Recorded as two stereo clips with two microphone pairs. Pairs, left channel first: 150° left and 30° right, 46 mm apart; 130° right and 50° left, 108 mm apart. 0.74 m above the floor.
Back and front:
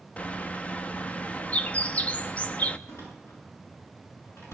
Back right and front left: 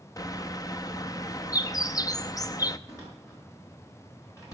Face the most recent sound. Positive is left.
turn(degrees=170)